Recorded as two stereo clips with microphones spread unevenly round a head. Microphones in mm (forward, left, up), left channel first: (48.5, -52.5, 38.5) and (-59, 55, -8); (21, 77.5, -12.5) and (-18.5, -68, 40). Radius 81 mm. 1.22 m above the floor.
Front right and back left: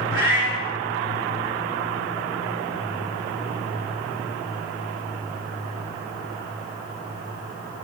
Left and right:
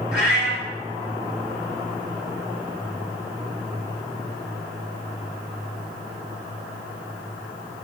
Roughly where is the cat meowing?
Left.